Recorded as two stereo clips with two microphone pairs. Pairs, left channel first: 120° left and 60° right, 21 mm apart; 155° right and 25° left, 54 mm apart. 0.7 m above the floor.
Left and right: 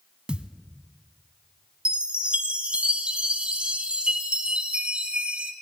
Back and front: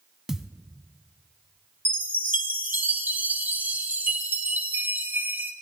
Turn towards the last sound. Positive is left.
turn(degrees=-30)